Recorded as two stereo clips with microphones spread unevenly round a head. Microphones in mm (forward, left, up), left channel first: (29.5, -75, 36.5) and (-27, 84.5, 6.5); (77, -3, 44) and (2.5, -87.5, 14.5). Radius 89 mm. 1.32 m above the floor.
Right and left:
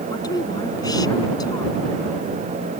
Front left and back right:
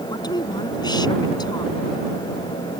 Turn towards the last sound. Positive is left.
turn(degrees=0)